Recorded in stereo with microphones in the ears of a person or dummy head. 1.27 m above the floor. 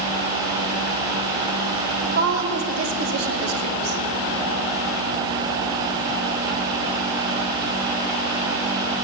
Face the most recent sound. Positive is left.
turn(degrees=-75)  # may be behind; listen again after turning